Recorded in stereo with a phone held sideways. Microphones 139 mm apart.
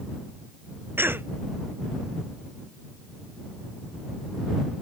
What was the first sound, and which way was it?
A cough, 15° right (ahead or behind).